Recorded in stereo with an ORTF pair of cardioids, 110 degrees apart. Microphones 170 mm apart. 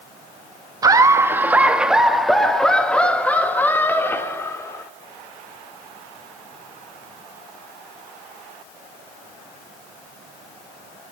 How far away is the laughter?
About 1.3 m.